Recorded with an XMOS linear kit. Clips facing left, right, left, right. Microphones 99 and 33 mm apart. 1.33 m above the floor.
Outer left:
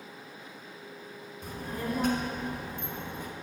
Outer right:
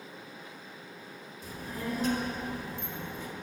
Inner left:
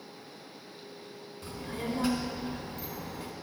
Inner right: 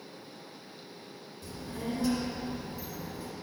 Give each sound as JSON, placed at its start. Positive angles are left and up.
{"t": 1.4, "sound": "a child speaking", "side_deg": 55, "distance_m": 1.2}